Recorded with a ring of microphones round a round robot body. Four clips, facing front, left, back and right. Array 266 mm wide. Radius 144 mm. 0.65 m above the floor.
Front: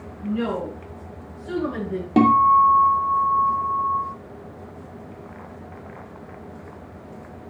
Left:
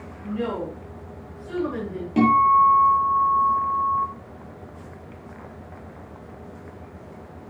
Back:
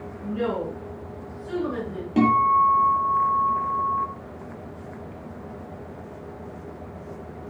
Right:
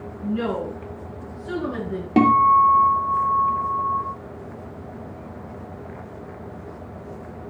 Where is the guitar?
50° right, 2.5 m.